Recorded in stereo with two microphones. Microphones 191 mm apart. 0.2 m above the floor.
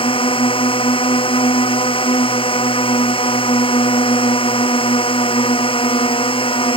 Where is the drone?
25° left (ahead or behind).